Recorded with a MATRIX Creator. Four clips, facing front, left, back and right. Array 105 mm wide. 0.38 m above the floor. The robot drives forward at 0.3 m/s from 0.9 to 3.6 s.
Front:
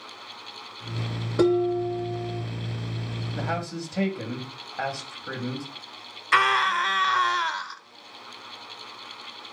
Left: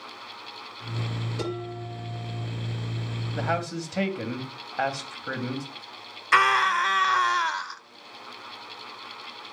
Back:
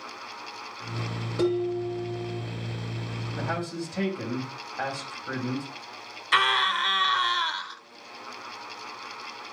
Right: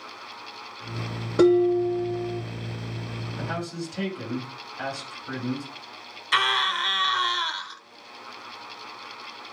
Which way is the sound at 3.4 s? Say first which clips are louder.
Left 4 dB, front 1 dB; 70° left.